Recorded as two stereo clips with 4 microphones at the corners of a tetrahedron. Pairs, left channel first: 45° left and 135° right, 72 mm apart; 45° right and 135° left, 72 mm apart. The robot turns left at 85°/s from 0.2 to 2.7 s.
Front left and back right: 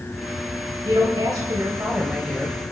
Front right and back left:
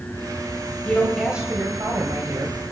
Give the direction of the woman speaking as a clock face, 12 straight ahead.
4 o'clock.